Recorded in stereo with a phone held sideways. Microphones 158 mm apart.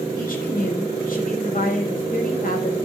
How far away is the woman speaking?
About 6.5 m.